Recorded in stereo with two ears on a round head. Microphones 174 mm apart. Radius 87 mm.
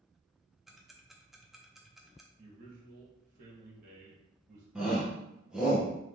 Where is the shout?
5° right (ahead or behind), 0.8 m.